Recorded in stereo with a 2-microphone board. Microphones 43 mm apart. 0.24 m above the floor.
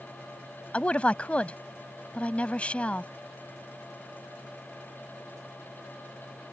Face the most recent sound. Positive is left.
turn(degrees=30)  # may be behind; listen again after turning